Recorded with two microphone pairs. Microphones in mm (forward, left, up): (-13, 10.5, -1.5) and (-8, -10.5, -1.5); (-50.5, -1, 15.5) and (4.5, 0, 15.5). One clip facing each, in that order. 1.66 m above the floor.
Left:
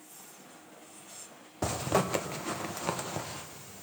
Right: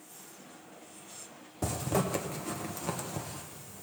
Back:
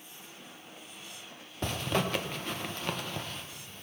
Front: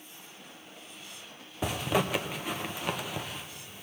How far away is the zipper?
About 0.7 m.